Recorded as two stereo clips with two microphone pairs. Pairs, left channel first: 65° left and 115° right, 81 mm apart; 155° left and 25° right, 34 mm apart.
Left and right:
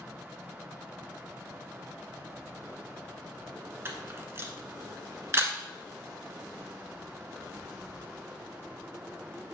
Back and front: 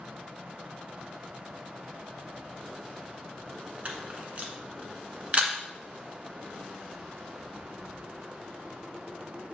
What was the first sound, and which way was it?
A camera shutter, 65° right.